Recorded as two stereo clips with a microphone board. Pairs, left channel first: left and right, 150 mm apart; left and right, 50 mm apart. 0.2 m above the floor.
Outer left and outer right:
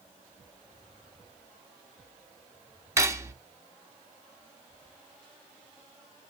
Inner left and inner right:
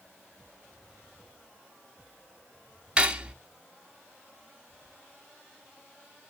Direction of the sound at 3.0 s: 20° right (ahead or behind).